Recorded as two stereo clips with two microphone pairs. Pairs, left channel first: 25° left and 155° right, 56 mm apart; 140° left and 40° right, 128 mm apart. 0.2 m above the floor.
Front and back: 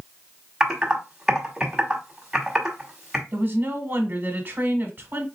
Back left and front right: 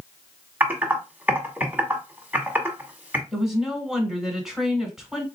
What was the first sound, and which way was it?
Typing on a keyboard, 95° right.